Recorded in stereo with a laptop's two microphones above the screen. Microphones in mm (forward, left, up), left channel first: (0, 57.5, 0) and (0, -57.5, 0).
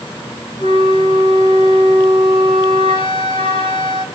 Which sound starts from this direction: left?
A flute, at 0.6 s.